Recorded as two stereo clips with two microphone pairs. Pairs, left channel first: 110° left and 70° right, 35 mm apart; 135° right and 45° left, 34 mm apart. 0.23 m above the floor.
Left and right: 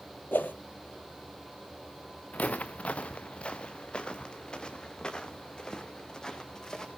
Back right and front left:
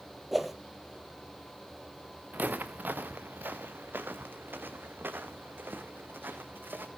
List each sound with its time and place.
0.3 s a whoosh: 125° left, 2 m
2.3 s footsteps: 70° left, 1.6 m; by 6.9 s 40° left, 5 m